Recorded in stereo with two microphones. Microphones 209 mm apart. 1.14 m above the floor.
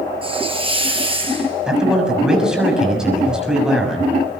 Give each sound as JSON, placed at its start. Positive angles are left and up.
{"t": 0.2, "sound": "a hiss", "side_deg": -25, "distance_m": 8.5}
{"t": 1.7, "sound": "a man speaking", "side_deg": -5, "distance_m": 6.5}